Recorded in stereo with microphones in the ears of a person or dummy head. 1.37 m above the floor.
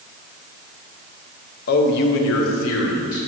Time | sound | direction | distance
1.7 | a man speaking | 50° left (ahead or behind) | 0.6 m